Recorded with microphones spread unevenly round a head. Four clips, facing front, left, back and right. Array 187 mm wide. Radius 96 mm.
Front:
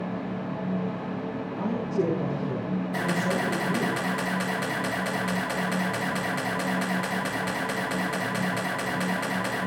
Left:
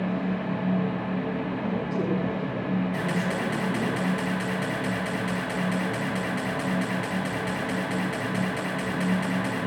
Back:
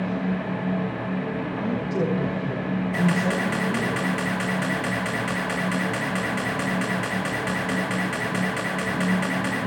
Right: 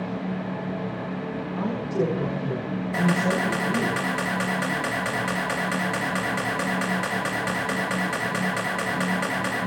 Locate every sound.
1.6 s a woman speaking: 140° right, 7.5 m
2.9 s a camera shutter: 90° right, 7.5 m